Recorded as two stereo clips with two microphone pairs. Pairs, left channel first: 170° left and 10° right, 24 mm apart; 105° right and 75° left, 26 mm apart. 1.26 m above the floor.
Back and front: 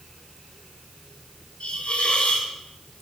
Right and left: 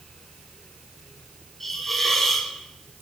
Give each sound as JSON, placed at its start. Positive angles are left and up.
{"t": 1.6, "sound": "a hiss", "azimuth_deg": 170, "distance_m": 1.1}